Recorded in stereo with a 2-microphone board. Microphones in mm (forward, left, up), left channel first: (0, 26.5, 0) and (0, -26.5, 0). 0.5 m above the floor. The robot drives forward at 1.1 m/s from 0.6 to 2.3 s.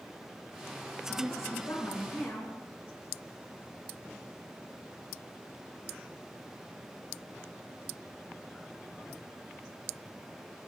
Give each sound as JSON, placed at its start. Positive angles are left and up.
{"t": 1.2, "sound": "a woman speaking", "side_deg": 75, "distance_m": 7.0}